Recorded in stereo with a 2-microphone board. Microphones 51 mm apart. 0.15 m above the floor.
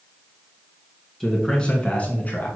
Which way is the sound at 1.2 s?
5° left (ahead or behind).